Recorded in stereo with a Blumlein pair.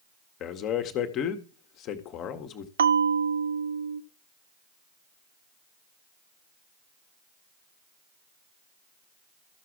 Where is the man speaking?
35° left, 1.4 m.